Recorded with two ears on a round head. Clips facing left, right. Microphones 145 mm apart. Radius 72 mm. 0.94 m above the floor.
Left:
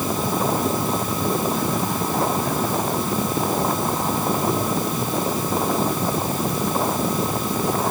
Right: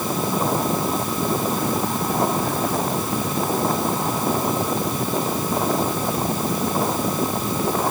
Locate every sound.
Only background noise.